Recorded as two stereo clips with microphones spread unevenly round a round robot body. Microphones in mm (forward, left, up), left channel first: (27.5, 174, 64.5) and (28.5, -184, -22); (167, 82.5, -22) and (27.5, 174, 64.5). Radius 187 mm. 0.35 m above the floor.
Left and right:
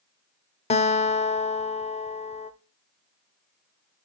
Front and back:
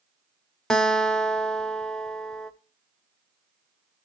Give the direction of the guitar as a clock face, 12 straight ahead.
12 o'clock.